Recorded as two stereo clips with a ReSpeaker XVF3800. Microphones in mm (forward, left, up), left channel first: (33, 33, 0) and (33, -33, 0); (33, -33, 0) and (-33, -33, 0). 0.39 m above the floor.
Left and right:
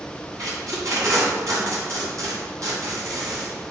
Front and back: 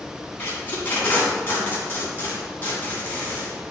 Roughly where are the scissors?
I don't hear scissors.